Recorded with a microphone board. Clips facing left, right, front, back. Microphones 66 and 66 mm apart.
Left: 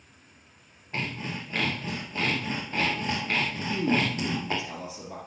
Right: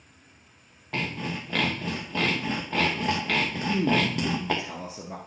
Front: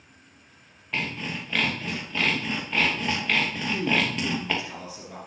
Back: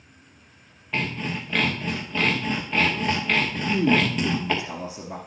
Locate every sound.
0.9 s sawing: 95° right, 3 m
3.5 s a man speaking: 125° right, 1.7 m